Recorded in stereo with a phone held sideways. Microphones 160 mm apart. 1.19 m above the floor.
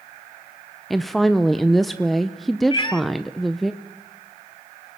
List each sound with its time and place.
0.9 s a woman speaking: centre (ahead or behind), 0.6 m
2.7 s a cat meowing: 30° left (ahead or behind), 1.0 m